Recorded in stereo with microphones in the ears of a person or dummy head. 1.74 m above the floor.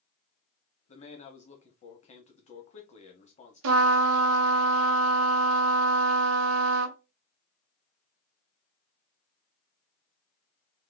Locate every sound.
0.9 s a man speaking: 40° left (ahead or behind), 1.0 m
3.6 s a trumpet: 80° right, 0.7 m